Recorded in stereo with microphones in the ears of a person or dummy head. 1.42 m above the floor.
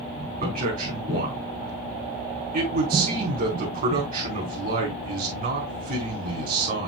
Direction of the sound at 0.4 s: 45° right (ahead or behind).